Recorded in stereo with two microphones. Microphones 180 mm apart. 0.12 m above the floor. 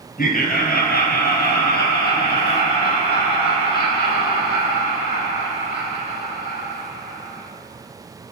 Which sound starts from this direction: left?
Laughter, at 0.2 s.